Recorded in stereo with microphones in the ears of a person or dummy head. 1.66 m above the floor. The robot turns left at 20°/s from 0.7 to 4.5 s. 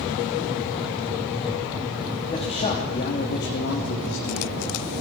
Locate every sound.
2.3 s a man speaking: 150° left, 3.5 m; by 4.8 s 110° left, 3.5 m